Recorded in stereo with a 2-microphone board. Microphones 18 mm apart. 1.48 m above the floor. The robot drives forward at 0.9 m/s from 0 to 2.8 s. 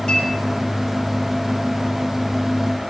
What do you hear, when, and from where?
0.1 s a clink: 70° left (ahead or behind), 7.5 m